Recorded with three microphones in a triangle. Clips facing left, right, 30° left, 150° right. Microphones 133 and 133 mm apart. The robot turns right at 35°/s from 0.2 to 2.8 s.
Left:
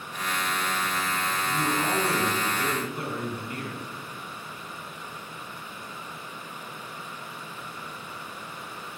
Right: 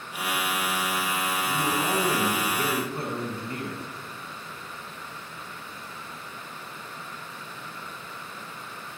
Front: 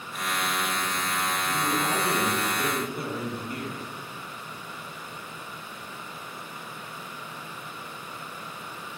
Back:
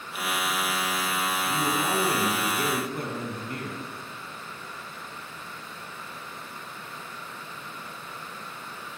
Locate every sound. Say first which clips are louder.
1.5 s a man speaking: even, back 1 dB; straight behind, 2.0 m; by 3.9 s 135° right, 2.0 m